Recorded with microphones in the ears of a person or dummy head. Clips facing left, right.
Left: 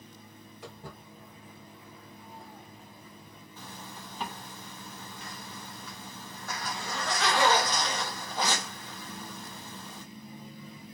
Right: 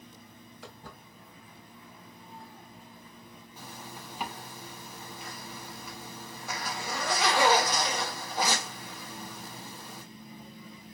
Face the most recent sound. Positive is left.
turn(degrees=-10)  # may be behind; listen again after turning